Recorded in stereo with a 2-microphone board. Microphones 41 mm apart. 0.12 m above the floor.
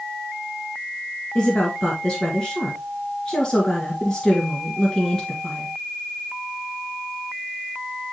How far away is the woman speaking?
About 2.0 m.